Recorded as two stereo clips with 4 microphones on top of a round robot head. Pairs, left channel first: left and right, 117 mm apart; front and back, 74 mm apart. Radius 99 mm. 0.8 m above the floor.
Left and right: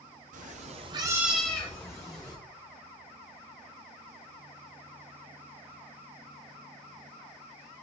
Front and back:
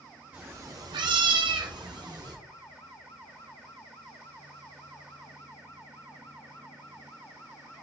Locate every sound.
0.3 s a cat meowing: 105° right, 0.6 m; by 2.4 s 150° left, 1.2 m